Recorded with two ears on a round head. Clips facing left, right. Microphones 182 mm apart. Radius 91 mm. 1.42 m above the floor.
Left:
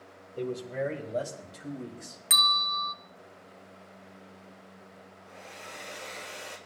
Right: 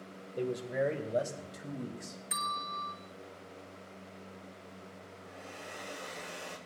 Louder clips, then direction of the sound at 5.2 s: Left 1 dB; 5° right (ahead or behind).